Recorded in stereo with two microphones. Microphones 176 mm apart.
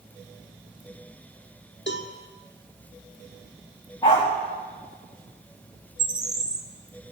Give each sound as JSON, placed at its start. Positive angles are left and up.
{"t": 1.9, "sound": "a cowbell", "side_deg": 80, "distance_m": 1.4}
{"t": 4.0, "sound": "a dog barking", "side_deg": 25, "distance_m": 4.5}
{"t": 6.0, "sound": "a bird", "side_deg": -20, "distance_m": 1.2}